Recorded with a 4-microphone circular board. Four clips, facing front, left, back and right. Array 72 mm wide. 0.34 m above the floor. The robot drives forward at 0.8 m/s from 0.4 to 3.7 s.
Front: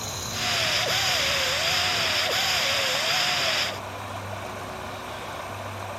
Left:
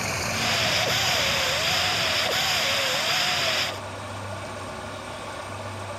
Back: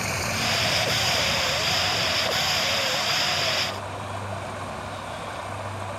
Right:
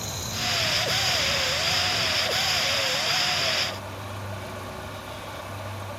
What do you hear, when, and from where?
0.0 s running water: 140° left, 1.2 m; by 6.0 s 165° left, 3.5 m